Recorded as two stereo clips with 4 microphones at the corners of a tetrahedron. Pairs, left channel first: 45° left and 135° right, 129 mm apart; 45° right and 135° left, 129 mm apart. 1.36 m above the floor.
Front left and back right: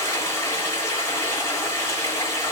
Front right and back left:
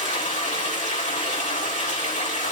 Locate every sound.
0.0 s running water: 25° right, 7 m